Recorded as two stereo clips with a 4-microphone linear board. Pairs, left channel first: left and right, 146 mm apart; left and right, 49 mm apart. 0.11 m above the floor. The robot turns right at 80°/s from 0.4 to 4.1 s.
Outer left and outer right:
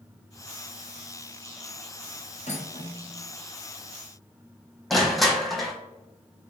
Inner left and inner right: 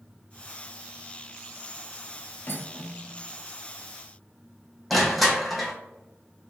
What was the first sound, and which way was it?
Cutlery clinking, 55° left (ahead or behind).